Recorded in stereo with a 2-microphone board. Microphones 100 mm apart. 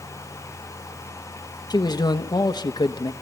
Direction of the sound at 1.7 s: 40° left (ahead or behind).